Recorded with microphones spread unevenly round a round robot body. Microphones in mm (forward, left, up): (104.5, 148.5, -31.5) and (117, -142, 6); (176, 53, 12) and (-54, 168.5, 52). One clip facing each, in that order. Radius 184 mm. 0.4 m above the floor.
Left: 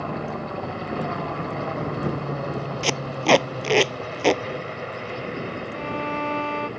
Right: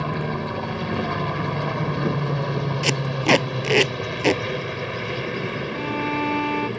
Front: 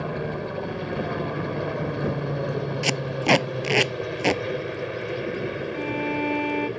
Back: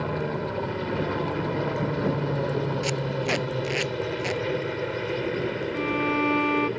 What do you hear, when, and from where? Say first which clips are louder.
0.0 s a helicopter: right 3 dB, back 1 dB; 115° right
2.8 s tape being pulled: even, front 2 dB; 15° right
5.7 s a violin: right 4 dB, back 2 dB; 110° right